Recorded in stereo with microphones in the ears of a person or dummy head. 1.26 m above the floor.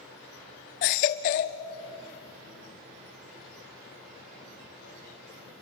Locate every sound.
0.8 s a baby crying: 45° left (ahead or behind), 0.9 m